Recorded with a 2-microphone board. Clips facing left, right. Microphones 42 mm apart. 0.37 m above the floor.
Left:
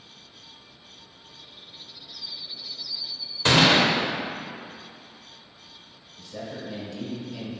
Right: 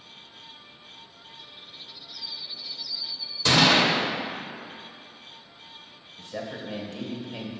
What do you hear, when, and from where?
3.5 s a gunshot: 35° left (ahead or behind), 1.0 m
6.2 s a man speaking: 45° right (ahead or behind), 1.2 m